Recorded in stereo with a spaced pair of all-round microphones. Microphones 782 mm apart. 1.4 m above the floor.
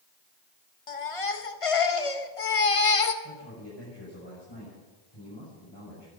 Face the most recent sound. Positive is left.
turn(degrees=30)  # may be behind; listen again after turning